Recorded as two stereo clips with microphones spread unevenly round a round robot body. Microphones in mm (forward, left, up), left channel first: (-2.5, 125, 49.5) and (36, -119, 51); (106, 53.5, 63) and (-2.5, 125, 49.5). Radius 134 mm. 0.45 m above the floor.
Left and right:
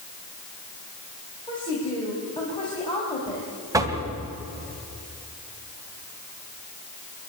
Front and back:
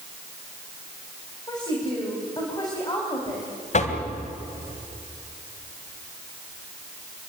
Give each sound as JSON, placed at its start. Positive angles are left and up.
{"t": 1.5, "sound": "a woman speaking", "azimuth_deg": 30, "distance_m": 4.5}
{"t": 3.7, "sound": "knocking", "azimuth_deg": -5, "distance_m": 2.5}